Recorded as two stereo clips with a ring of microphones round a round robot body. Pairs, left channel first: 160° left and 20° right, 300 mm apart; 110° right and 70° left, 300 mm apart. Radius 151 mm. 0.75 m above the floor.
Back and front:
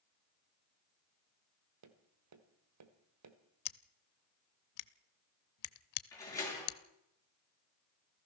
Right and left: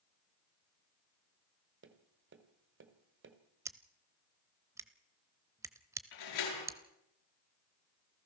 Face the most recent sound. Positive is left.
turn(degrees=-125)